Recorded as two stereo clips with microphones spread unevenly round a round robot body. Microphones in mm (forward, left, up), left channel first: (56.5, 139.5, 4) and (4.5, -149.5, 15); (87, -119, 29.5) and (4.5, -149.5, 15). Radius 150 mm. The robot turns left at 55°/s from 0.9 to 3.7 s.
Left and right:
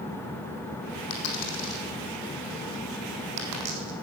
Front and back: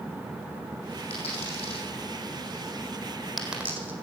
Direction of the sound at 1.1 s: 60° left.